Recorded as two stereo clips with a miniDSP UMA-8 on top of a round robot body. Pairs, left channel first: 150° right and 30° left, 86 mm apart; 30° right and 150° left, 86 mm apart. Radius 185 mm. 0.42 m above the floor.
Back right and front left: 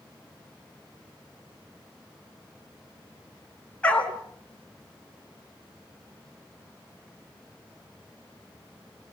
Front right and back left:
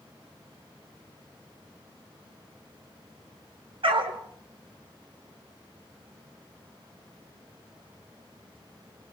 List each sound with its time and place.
3.8 s a dog barking: 135° left, 2.5 m